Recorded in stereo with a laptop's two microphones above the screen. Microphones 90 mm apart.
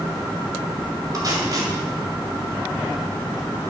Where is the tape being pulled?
40° right (ahead or behind), 2 m.